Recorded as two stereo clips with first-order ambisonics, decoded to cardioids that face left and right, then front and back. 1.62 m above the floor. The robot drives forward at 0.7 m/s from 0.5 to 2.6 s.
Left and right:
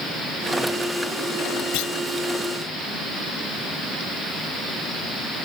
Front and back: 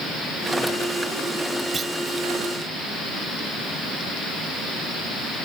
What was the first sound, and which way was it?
A clunk, 110° left.